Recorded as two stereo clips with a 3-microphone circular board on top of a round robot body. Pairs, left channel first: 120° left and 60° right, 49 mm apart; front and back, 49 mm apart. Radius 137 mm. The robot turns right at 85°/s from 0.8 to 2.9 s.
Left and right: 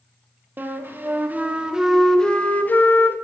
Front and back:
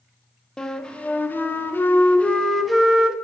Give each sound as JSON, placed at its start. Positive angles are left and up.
{"t": 0.6, "sound": "a flute", "azimuth_deg": -70, "distance_m": 0.5}